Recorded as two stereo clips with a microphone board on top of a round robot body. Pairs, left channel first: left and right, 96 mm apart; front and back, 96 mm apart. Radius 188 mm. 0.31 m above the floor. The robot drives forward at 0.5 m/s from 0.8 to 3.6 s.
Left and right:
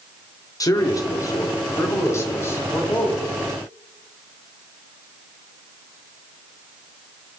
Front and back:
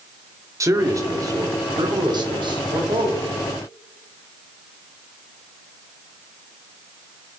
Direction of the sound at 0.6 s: 130° left.